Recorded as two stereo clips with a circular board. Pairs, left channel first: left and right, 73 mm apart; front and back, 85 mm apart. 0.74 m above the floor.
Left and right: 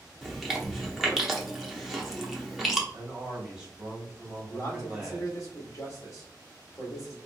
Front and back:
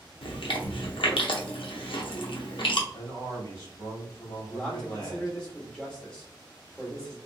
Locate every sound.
0.2 s chewing: 5° right, 0.8 m
2.9 s a man speaking: 15° right, 1.7 m
4.5 s a man speaking: 75° left, 1.5 m